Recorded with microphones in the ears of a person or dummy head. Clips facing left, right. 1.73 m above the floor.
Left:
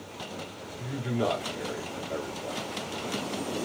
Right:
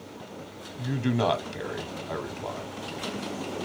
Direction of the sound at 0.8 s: 75° right (ahead or behind).